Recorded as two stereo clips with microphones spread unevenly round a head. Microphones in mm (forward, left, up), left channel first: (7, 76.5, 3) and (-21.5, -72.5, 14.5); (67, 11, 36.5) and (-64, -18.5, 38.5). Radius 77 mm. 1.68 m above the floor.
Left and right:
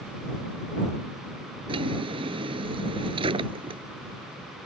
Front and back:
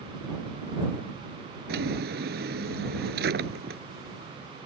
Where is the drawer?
160° right.